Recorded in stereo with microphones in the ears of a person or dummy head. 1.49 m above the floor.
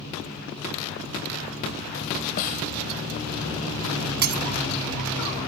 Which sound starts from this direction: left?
A snare drum, at 2.4 s.